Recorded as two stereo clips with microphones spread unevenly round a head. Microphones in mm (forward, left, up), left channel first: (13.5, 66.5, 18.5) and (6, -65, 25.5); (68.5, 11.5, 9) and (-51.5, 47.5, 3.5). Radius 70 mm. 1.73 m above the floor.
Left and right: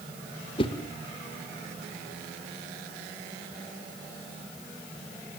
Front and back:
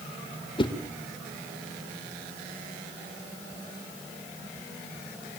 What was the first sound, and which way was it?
A whoosh, 35° left.